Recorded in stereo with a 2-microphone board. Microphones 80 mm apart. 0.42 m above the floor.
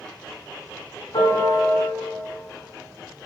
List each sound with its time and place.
1.1 s a piano: 85° left, 1.3 m